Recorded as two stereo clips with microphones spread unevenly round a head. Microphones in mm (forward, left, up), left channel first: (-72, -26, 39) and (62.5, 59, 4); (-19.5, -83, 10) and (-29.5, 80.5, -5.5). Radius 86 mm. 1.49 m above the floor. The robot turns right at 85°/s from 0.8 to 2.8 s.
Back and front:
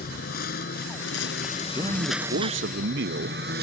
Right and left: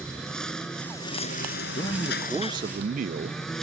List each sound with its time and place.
0.0 s a lawn mower: 170° right; by 3.6 s straight ahead
1.8 s a man speaking: 40° right; by 3.4 s 50° left